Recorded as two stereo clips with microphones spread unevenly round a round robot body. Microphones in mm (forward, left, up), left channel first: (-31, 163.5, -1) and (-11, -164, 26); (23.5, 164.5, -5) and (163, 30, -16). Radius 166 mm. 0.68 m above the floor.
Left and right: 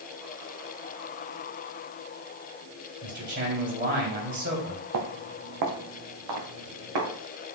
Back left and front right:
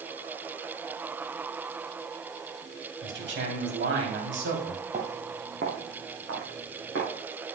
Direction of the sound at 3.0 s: 25° right.